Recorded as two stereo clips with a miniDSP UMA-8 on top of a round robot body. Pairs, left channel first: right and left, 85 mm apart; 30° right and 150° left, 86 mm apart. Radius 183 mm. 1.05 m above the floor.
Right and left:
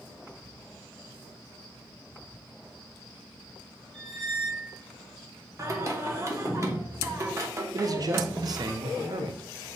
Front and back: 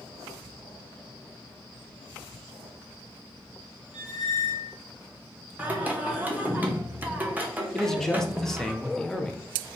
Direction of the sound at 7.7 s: 55° left.